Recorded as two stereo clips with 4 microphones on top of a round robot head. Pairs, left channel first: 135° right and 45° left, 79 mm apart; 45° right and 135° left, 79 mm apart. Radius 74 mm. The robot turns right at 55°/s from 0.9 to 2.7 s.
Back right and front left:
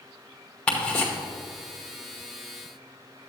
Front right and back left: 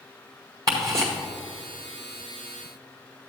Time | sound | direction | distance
0.7 | ticking | 150° left | 1.0 m